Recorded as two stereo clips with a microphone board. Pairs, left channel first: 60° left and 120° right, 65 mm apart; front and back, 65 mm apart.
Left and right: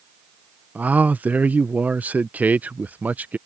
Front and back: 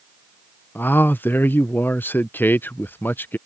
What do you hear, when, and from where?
0.8 s a man speaking: 55° right